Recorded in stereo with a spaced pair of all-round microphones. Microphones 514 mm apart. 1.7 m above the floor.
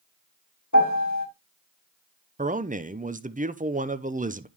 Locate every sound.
0.7 s a piano: 35° left (ahead or behind), 2.5 m
2.4 s a man speaking: 15° right (ahead or behind), 0.6 m